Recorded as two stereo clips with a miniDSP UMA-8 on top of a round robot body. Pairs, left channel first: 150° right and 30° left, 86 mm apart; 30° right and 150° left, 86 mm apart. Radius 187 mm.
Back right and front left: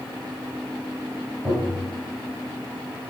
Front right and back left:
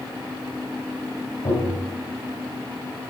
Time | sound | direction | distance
1.4 | tapping | 30° right | 8.5 m